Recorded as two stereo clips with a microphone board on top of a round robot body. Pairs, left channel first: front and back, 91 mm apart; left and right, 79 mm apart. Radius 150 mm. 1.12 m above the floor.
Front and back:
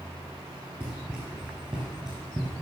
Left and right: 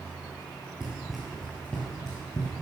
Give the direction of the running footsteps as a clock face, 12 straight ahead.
5 o'clock.